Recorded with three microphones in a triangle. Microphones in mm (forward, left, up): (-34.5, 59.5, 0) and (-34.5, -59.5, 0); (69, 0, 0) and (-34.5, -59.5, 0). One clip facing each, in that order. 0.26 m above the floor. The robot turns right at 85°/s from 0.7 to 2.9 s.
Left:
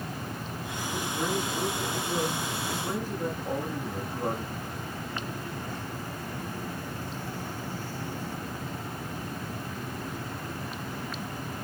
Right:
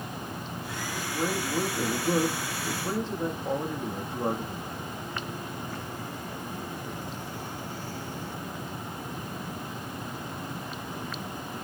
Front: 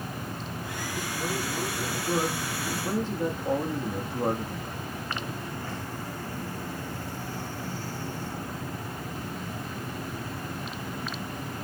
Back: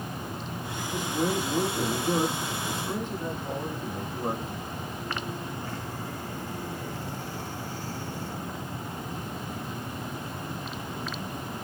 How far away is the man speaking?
About 8.5 m.